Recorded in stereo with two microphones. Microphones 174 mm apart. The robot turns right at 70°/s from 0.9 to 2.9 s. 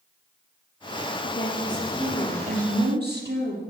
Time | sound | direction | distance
1.2 | a woman speaking | 140° left | 6 m